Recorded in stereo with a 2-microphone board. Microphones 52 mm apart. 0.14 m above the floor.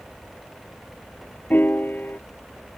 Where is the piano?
35° left (ahead or behind).